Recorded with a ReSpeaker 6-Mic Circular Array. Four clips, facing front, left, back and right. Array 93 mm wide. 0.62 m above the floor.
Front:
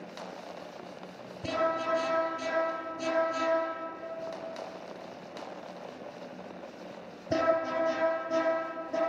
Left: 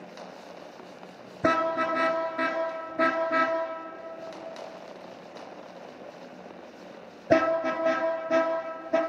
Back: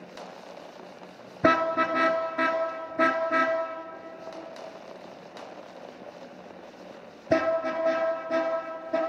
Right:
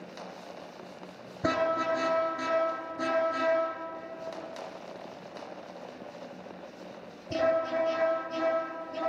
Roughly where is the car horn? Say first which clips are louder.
Left 3 dB, back 7 dB; behind.